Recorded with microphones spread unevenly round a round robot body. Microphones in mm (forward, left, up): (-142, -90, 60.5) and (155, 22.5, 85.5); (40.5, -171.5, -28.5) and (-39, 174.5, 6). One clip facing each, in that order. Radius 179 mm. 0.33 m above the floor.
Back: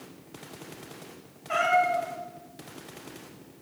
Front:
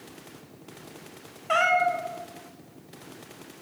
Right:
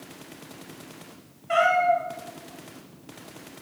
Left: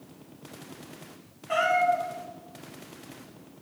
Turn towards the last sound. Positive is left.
turn(degrees=15)